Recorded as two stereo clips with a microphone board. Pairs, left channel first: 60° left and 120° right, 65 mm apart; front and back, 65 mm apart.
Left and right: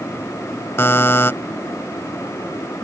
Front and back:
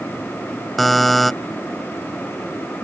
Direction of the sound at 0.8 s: 90° left.